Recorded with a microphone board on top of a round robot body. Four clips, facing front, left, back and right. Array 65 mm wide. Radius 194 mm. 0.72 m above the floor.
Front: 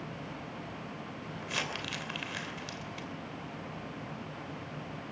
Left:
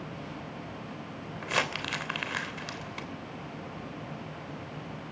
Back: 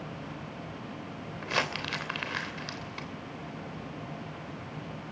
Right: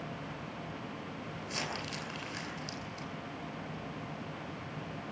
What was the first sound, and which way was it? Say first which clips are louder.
Crumpling: left 10 dB, back 6 dB; 130° left.